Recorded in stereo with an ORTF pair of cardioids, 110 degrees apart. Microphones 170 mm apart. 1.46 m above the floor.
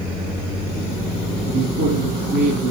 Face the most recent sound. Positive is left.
turn(degrees=-55)